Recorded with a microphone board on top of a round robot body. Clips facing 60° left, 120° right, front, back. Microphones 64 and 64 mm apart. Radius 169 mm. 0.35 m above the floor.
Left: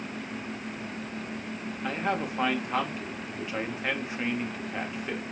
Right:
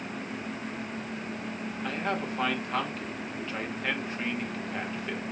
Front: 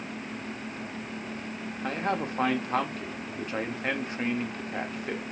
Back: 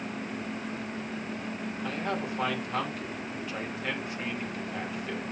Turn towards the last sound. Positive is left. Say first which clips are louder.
# left 2 dB, front 4 dB
turn(degrees=-15)